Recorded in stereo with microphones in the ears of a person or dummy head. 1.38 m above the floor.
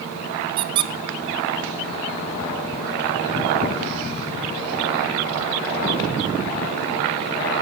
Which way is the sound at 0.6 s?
25° right (ahead or behind).